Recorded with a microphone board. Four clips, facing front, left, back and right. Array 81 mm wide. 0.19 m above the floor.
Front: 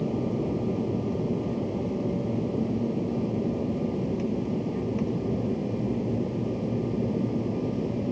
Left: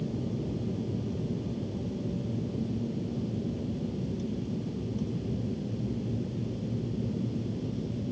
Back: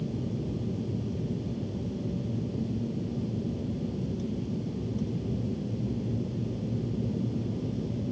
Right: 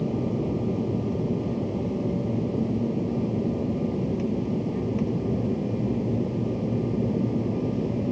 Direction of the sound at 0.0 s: 40° right.